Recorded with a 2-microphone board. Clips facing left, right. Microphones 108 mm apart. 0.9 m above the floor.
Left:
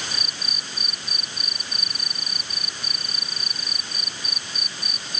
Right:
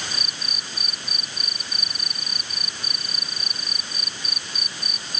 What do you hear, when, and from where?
Only background noise.